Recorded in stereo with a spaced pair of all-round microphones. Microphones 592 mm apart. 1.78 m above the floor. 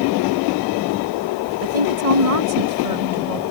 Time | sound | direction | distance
1.6 | a woman speaking | 70° right (ahead or behind) | ?